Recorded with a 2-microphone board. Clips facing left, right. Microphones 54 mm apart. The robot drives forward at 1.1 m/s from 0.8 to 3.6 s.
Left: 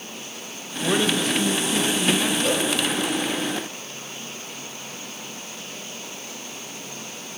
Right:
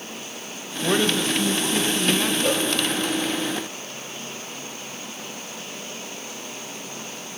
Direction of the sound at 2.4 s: 5° right (ahead or behind).